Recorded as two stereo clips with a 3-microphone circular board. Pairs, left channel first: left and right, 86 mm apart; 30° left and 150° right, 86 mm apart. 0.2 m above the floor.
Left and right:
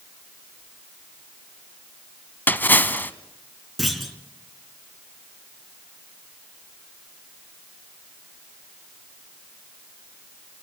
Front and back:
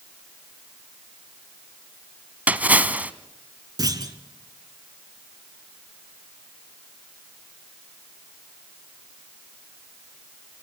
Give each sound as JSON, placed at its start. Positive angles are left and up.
{"t": 2.5, "sound": "a splash", "azimuth_deg": 145, "distance_m": 1.3}
{"t": 3.8, "sound": "a clunk", "azimuth_deg": 180, "distance_m": 2.5}